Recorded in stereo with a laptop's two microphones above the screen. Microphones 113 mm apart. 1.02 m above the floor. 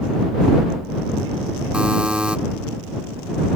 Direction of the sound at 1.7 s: 10° right (ahead or behind).